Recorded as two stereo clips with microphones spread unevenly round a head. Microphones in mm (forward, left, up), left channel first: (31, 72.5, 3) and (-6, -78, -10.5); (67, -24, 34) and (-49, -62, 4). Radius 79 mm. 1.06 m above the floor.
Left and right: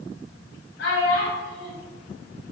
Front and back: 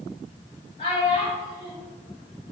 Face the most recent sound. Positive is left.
turn(degrees=75)